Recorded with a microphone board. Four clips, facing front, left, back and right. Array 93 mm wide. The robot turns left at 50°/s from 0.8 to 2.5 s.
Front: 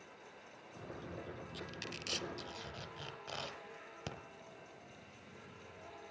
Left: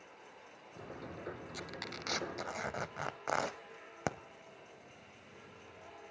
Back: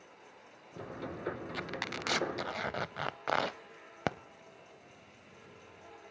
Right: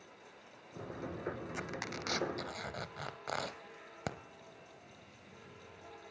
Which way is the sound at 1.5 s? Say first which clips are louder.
Right 4 dB, back 8 dB; 150° right.